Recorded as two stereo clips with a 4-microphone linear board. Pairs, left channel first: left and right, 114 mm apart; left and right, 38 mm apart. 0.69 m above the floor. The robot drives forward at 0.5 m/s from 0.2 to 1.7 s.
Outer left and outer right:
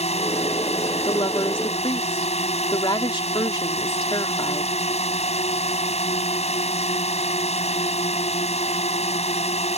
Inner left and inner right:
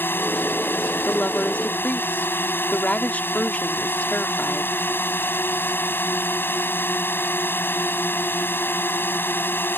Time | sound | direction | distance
0.0 | a drone | 75° left (ahead or behind) | ?
1.1 | a woman speaking | 50° left (ahead or behind) | ?